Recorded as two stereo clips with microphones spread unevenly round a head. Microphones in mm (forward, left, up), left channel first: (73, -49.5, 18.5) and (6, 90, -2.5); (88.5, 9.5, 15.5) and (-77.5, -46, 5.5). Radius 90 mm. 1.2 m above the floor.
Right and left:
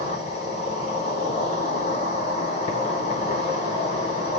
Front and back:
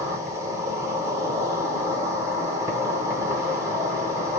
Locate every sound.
0.0 s an insect: 90° right, 1.3 m